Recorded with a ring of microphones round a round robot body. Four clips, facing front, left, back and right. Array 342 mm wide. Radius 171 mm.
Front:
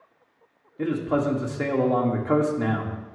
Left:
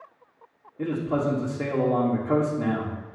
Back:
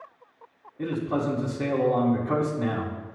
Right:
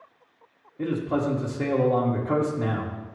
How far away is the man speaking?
About 1.3 m.